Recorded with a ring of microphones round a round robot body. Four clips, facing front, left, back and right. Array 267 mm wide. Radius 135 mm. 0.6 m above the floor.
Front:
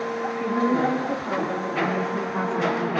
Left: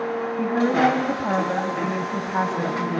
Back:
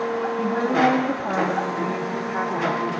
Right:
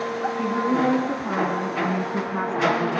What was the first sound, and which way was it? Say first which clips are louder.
A woman speaking: left 3 dB, back 2 dB; 140° left.